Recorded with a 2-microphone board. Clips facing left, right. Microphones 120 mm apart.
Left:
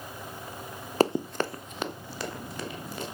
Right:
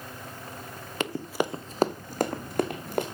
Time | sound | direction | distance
1.0 | running footsteps | 40° left (ahead or behind) | 0.5 m